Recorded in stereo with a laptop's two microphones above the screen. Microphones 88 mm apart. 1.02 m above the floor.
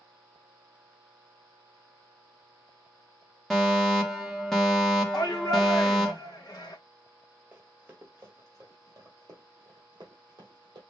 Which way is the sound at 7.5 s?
20° right (ahead or behind).